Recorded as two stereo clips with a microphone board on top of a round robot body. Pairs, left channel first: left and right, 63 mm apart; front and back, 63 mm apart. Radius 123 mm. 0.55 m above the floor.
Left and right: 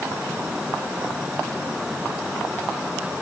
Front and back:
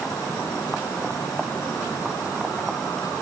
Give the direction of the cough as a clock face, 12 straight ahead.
No cough in this recording.